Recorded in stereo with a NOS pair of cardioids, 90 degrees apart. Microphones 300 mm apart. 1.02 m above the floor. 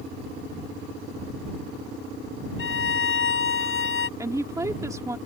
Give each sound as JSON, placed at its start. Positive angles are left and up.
{"t": 2.6, "sound": "a violin", "azimuth_deg": 45}
{"t": 4.2, "sound": "a woman speaking", "azimuth_deg": -10}